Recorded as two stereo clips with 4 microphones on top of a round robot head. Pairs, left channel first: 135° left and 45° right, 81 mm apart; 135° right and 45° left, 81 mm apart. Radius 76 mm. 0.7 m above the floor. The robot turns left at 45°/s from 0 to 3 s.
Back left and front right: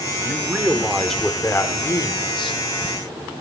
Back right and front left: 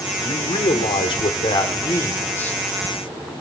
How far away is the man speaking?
About 1.9 m.